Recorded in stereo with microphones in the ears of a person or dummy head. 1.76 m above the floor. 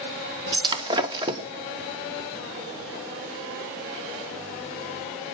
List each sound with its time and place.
0.5 s breaking glass: 25° right (ahead or behind), 1.4 m